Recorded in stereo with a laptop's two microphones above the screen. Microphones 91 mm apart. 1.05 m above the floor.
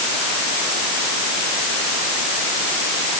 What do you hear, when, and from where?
Only background noise.